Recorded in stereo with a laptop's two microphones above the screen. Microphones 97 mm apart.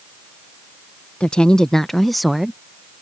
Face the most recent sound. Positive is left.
turn(degrees=0)  # may be behind; listen again after turning